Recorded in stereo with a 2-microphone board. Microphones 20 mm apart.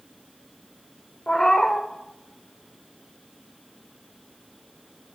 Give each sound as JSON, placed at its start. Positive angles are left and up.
{"t": 1.3, "sound": "a cat meowing", "side_deg": 40, "distance_m": 1.1}